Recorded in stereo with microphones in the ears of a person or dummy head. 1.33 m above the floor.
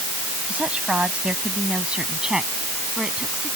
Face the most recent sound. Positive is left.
turn(degrees=0)  # may be behind; listen again after turning